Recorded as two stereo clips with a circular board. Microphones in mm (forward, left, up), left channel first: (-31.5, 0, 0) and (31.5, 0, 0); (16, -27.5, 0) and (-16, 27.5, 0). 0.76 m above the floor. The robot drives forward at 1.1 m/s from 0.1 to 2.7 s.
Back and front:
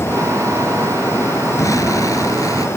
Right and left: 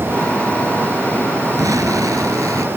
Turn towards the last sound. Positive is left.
turn(degrees=155)